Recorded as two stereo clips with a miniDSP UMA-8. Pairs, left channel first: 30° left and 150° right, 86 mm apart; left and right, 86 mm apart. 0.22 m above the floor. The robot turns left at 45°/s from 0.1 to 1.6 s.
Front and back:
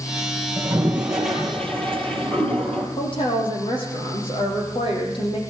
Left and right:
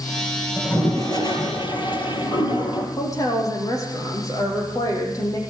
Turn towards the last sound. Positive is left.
turn(degrees=40)